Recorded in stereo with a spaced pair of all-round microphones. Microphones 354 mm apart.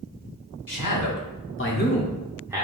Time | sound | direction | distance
0.7 | a man speaking | 65° left (ahead or behind) | 1.2 m